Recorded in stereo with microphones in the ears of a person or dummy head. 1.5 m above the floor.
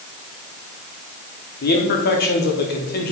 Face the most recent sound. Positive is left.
turn(degrees=50)  # may be behind; listen again after turning